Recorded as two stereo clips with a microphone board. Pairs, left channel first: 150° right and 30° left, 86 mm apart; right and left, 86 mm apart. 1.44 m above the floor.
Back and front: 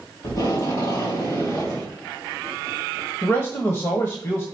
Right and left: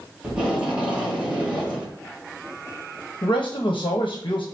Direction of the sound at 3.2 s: 100° right.